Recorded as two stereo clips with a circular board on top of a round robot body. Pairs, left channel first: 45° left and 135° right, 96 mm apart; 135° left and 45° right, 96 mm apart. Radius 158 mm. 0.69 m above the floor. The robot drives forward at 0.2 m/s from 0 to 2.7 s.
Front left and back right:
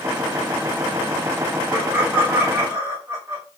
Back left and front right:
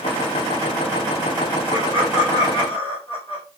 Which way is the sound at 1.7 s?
155° left.